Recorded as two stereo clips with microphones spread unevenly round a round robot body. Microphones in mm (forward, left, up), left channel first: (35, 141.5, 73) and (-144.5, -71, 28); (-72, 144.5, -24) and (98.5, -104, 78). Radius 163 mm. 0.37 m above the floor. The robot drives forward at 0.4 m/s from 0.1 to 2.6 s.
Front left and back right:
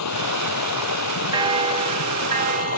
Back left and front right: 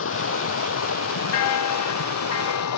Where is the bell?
155° left; by 2.8 s 165° left.